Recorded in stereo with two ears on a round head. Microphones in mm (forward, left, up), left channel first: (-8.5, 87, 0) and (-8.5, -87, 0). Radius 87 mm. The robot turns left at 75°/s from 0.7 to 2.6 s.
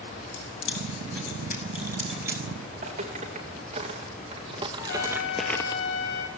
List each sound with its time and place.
0.3 s keys jangling: 75° left (ahead or behind), 5.5 m; by 2.4 s 25° right (ahead or behind), 5.5 m
2.7 s footsteps: 40° right (ahead or behind), 4.5 m; by 5.8 s 25° left (ahead or behind), 1.1 m
4.8 s a trumpet: 60° left (ahead or behind), 6.5 m